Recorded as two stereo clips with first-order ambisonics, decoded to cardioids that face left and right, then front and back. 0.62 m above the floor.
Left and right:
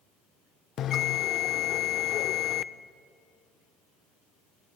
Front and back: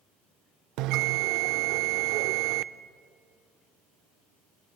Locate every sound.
0.8 s a bell: 145° left, 0.7 m